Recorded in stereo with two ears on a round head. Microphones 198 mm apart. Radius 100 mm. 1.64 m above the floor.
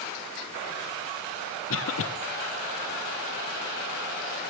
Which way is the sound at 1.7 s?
65° left (ahead or behind).